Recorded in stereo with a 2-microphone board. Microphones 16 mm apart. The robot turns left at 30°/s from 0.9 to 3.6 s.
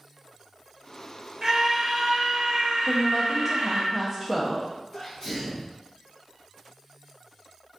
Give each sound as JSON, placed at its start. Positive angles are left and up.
{"t": 1.4, "sound": "a scream", "azimuth_deg": -25, "distance_m": 0.7}
{"t": 2.9, "sound": "a woman speaking", "side_deg": 5, "distance_m": 0.6}
{"t": 4.9, "sound": "a sneeze", "side_deg": 30, "distance_m": 0.6}